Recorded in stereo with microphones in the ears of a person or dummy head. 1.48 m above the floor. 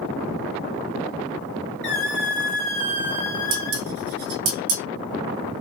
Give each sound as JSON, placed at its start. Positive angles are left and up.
{"t": 1.8, "sound": "a squeak", "side_deg": 5, "distance_m": 1.6}
{"t": 3.5, "sound": "dishes clattering", "side_deg": -60, "distance_m": 1.8}